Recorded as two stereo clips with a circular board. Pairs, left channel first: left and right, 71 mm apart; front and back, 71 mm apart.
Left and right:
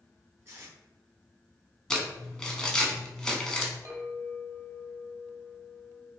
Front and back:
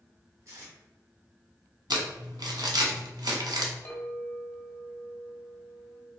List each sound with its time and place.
0.5 s tape being pulled: 140° right, 1.7 m
1.9 s crumpling: 170° left, 0.8 m
3.9 s a clink: 60° right, 0.9 m